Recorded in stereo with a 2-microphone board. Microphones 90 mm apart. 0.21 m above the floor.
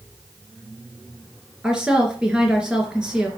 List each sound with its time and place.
1.6 s a woman speaking: 10° right (ahead or behind), 3 m